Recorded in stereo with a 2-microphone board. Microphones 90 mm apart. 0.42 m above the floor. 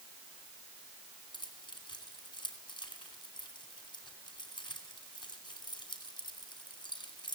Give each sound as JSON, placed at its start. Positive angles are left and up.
{"t": 1.3, "sound": "keys jangling", "side_deg": 65, "distance_m": 2.5}